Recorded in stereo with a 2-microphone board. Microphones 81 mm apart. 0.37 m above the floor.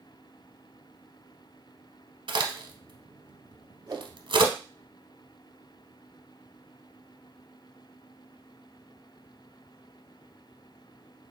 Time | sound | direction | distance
2.3 | a crack | 85° right | 1.0 m
3.9 | a whoosh | 40° right (ahead or behind) | 1.1 m